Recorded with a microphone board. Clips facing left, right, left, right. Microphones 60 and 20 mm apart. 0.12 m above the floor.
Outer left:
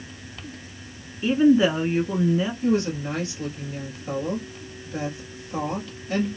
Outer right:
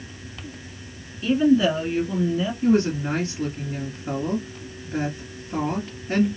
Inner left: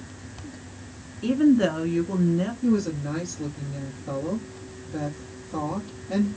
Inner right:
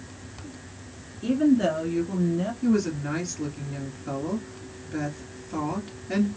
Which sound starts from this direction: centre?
A woman speaking, at 1.2 s.